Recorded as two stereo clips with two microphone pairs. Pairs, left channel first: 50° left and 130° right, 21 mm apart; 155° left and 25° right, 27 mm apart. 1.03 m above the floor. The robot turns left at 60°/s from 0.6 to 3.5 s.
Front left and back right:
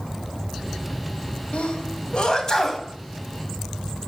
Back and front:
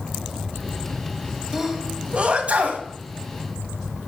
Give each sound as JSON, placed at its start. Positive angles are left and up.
{"t": 1.5, "sound": "a sneeze", "azimuth_deg": 55, "distance_m": 1.7}